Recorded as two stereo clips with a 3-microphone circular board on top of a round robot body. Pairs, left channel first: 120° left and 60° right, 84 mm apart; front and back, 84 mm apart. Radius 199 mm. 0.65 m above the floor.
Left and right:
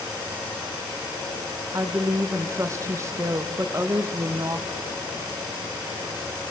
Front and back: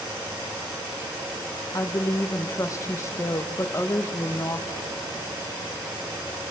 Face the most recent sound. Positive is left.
turn(degrees=-30)